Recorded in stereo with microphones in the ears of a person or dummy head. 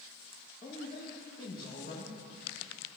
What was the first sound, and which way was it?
A man speaking, 25° left (ahead or behind).